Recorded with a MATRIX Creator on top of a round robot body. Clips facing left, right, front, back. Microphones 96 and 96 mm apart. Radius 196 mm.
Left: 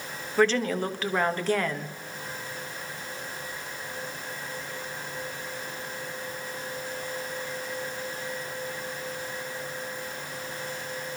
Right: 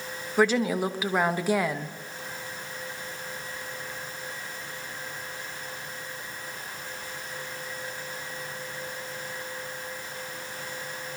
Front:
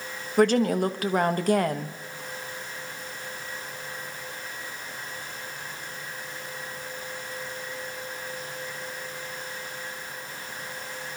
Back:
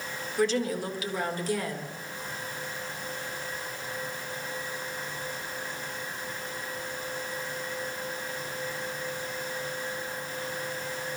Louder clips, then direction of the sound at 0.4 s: Even, front 7 dB; 10° right.